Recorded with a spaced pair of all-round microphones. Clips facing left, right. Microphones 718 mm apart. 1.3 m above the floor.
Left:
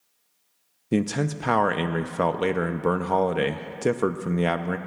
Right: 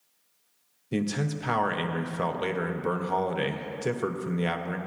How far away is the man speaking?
About 0.5 m.